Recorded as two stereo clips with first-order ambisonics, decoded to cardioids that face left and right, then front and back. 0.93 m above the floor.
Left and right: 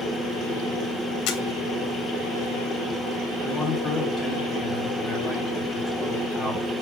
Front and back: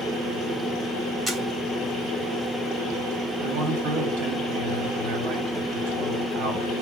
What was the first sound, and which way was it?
A camera shutter, 105° left.